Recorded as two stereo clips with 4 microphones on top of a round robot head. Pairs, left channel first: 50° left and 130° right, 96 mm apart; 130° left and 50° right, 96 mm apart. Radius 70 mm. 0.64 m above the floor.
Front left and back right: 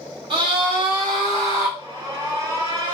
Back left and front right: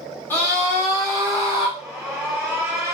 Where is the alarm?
130° right, 1.9 m.